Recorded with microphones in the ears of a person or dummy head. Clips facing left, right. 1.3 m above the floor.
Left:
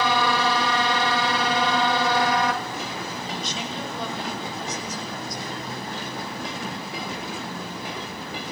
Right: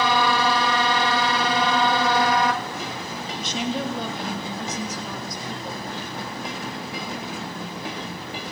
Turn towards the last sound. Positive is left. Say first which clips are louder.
# right 5 dB
turn(degrees=-55)  # may be behind; listen again after turning